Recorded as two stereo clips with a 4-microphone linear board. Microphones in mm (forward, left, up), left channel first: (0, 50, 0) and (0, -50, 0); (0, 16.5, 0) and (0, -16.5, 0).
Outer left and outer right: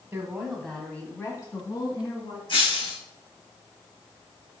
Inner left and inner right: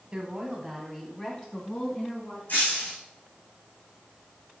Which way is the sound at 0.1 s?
20° right (ahead or behind).